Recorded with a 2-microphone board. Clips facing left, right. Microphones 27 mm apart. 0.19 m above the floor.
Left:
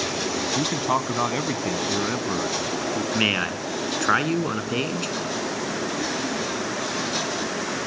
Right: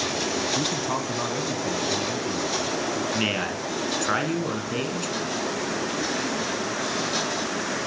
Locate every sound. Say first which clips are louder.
0.6 s a man speaking: left 3 dB; 20° left (ahead or behind), 1.1 m; by 3.0 s 50° left (ahead or behind), 2 m
3.1 s a man speaking: left 3 dB; 25° left (ahead or behind), 2.5 m